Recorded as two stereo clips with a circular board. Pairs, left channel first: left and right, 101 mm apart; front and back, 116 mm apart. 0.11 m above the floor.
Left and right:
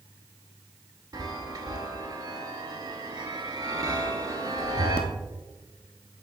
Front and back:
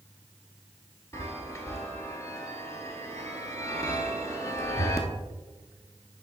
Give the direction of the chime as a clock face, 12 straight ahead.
2 o'clock.